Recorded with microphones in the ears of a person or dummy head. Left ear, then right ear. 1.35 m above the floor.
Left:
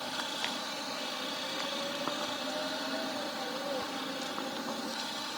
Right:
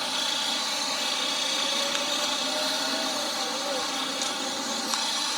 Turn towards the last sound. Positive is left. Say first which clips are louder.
# right 8 dB
turn(degrees=-65)  # may be behind; listen again after turning